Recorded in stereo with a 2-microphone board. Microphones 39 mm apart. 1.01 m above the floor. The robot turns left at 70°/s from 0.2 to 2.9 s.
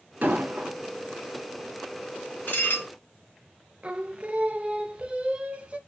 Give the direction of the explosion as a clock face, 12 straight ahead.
2 o'clock.